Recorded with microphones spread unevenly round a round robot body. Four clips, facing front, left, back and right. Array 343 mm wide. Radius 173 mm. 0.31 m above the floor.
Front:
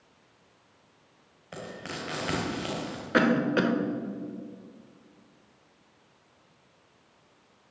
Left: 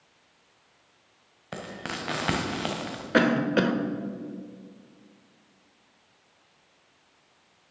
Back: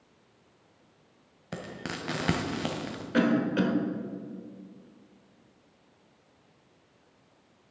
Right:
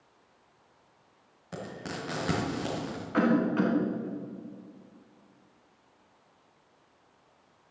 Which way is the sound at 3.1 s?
100° left.